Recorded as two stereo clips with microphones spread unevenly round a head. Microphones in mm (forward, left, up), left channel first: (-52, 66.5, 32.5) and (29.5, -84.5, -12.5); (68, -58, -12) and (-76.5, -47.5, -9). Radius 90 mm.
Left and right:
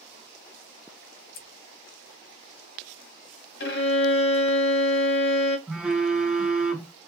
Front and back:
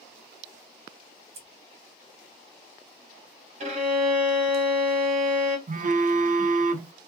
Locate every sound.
1.3 s scissors: 125° left, 0.9 m
3.6 s a violin: 125° left, 0.9 m
5.7 s a phone buzzing: 150° right, 0.7 m